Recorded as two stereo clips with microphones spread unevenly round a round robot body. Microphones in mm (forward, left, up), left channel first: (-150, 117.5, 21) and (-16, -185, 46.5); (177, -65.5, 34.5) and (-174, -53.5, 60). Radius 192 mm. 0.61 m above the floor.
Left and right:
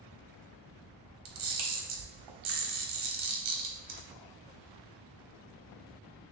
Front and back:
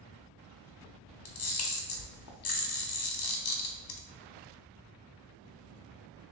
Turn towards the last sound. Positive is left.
turn(degrees=-50)